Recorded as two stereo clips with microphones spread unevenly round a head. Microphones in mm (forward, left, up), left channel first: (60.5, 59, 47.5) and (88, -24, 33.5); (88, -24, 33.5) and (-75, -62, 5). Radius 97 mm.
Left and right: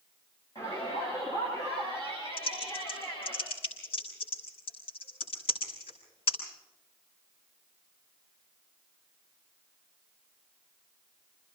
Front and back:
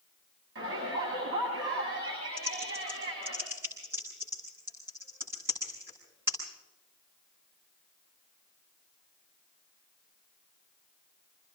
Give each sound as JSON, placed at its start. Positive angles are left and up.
{"t": 0.6, "sound": "a shout", "azimuth_deg": 175, "distance_m": 7.5}
{"t": 2.4, "sound": "typing on a keyboard", "azimuth_deg": 115, "distance_m": 8.5}